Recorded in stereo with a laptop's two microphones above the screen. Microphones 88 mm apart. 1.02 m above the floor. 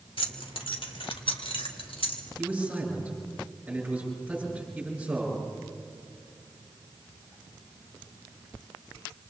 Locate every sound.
0.2 s keys jangling: 80° left, 1.7 m; by 2.2 s 85° left, 3 m
2.4 s a man speaking: 15° right (ahead or behind), 6 m